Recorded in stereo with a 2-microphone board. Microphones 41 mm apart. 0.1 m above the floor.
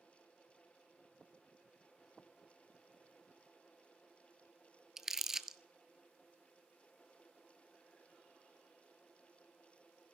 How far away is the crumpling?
About 0.5 m.